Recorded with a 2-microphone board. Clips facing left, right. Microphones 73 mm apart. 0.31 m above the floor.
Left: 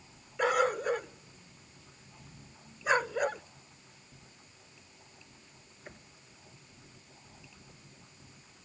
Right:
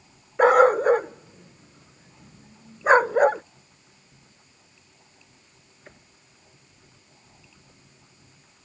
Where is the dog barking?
50° right (ahead or behind).